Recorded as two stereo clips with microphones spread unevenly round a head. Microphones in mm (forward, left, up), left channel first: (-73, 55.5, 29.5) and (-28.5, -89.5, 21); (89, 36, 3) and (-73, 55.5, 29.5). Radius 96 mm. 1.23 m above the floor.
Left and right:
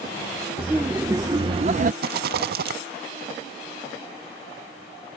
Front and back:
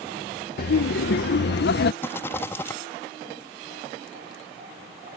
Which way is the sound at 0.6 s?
10° left.